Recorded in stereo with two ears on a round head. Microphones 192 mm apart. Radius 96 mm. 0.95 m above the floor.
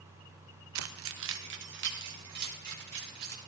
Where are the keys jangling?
75° right (ahead or behind), 0.6 m; by 3.4 s 50° right (ahead or behind), 4 m.